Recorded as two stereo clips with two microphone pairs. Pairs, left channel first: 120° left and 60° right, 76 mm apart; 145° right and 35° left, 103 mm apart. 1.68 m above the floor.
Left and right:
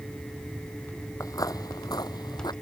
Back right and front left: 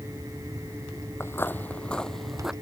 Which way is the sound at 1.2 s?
150° left.